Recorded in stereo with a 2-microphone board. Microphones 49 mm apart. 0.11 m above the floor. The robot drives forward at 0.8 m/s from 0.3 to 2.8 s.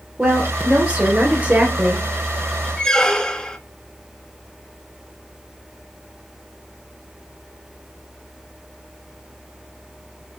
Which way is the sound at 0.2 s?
20° right (ahead or behind).